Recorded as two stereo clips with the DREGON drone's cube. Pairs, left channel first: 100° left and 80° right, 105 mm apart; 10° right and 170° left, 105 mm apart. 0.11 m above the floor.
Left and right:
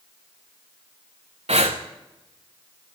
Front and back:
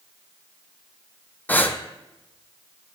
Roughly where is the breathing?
Right.